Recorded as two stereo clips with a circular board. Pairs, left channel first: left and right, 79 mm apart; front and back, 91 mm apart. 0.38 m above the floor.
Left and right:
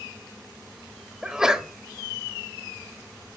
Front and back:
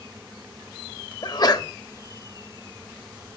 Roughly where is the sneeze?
Ahead.